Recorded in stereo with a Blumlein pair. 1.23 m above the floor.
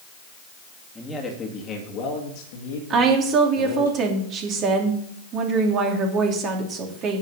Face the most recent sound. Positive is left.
turn(degrees=-30)